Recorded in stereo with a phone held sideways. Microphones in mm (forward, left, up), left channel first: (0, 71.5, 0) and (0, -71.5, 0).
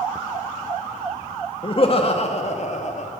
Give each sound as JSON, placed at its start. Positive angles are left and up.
{"t": 1.6, "sound": "laughter", "side_deg": 40, "distance_m": 1.9}